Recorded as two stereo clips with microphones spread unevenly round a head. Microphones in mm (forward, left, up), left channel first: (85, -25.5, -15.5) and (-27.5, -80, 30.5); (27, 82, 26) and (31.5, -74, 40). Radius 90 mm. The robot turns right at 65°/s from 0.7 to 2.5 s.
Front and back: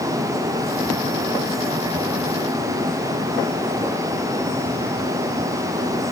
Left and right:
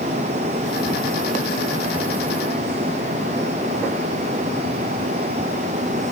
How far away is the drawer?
I don't hear a drawer.